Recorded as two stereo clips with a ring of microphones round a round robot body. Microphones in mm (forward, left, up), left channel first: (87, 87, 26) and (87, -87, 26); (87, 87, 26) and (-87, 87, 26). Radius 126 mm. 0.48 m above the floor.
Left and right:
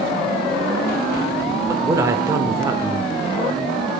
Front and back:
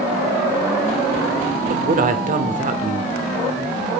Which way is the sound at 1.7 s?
160° right.